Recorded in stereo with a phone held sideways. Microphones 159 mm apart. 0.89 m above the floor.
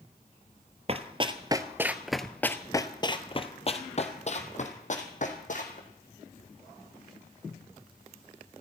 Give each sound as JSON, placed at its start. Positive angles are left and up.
{"t": 0.9, "sound": "running footsteps", "side_deg": -40, "distance_m": 1.1}